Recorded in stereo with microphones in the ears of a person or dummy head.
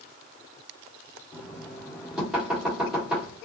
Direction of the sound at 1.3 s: 5° left (ahead or behind).